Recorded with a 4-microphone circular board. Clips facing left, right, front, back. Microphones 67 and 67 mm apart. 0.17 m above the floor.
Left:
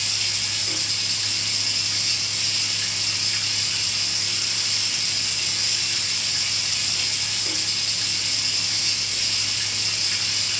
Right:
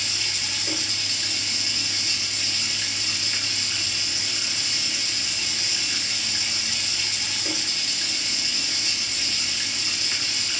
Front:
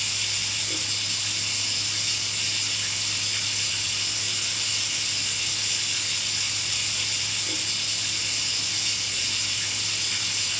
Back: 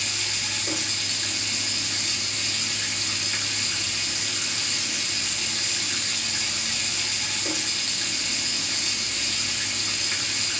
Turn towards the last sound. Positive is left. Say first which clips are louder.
# even, back 2 dB
turn(degrees=-150)